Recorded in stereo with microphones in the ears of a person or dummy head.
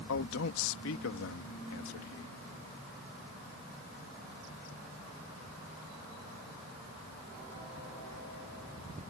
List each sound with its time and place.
0.1 s a man speaking: 75° left (ahead or behind)